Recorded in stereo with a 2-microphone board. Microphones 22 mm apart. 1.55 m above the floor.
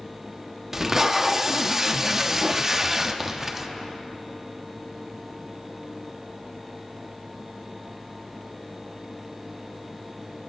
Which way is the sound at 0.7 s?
20° right (ahead or behind).